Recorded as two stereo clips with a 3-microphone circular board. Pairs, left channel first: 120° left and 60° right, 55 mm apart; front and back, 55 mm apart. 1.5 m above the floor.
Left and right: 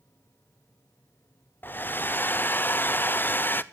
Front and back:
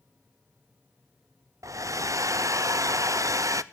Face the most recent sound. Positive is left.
turn(degrees=170)